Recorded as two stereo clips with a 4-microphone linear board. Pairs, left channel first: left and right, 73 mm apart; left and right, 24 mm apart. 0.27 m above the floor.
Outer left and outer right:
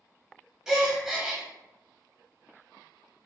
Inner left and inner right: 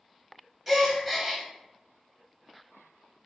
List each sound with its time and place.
0.7 s a gasp: 5° right (ahead or behind), 0.5 m